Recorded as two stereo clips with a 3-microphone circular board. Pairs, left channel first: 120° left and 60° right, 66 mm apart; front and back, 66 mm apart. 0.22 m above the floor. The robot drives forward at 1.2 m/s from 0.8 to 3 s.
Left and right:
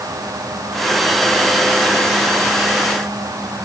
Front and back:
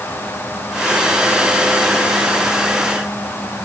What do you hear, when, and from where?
Only background noise.